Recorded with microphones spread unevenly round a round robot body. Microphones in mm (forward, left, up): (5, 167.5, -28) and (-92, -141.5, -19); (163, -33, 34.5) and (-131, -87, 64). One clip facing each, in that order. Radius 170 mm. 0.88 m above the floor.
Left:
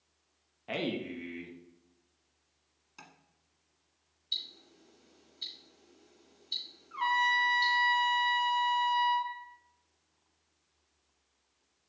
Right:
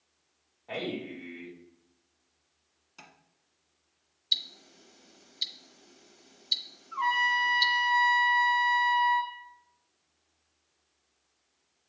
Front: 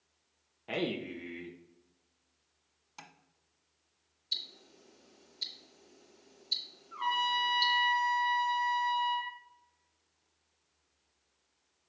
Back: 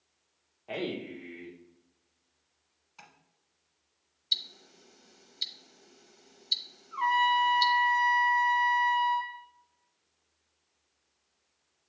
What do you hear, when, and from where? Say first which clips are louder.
0.7 s a man speaking: even, even; 55° left, 1.0 m
3.0 s tapping: right 1 dB, front 3 dB; 10° right, 1.2 m
4.3 s ticking: right 2 dB, even; 110° right, 1.0 m
6.9 s a trumpet: right 1 dB, back 7 dB; 100° left, 3 m